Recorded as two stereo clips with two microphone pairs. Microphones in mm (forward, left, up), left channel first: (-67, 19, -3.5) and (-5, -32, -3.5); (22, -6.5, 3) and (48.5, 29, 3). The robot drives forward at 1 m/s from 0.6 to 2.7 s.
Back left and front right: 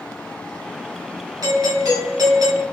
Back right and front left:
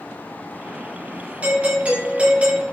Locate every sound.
1.4 s a doorbell: 5° right, 4 m